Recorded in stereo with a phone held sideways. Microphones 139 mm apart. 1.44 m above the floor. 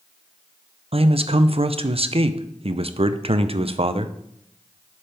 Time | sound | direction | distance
0.9 | a man speaking | 45° right (ahead or behind) | 0.6 m